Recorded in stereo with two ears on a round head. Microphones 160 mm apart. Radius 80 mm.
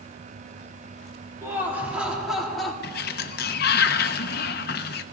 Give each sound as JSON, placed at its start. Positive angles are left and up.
{"t": 1.4, "sound": "laughter", "side_deg": -15, "distance_m": 3.0}
{"t": 2.8, "sound": "a sliding door", "side_deg": 60, "distance_m": 0.7}